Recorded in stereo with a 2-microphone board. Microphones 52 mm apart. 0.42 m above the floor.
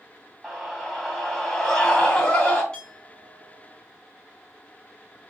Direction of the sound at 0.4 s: Centre (ahead or behind).